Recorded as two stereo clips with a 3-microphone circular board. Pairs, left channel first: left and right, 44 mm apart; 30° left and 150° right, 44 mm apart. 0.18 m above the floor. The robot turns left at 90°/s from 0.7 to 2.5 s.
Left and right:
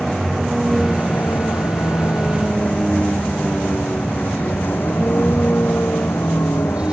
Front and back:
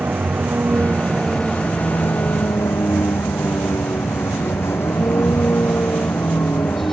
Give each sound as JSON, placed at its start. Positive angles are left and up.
{"t": 0.0, "sound": "a vehicle", "azimuth_deg": 170}